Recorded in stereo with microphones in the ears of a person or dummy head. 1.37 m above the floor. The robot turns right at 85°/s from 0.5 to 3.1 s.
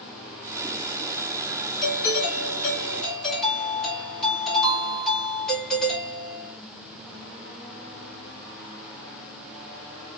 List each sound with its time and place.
1.8 s a doorbell: 65° left, 1.2 m; by 6.6 s 175° left, 1.2 m